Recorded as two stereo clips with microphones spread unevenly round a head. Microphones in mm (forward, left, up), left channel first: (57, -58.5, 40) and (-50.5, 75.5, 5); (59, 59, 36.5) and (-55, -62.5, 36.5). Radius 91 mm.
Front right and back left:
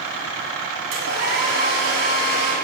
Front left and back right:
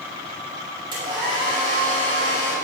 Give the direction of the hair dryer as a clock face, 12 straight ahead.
7 o'clock.